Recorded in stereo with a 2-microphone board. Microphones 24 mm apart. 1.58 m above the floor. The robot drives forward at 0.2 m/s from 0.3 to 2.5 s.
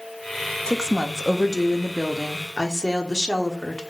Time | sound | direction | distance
0.7 | a woman speaking | 25° left (ahead or behind) | 0.5 m